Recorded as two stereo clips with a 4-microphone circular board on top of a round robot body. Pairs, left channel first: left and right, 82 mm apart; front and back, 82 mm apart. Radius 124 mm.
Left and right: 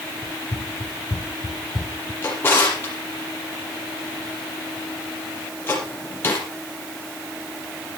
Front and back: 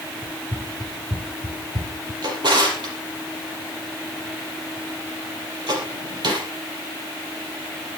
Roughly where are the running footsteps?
Behind left.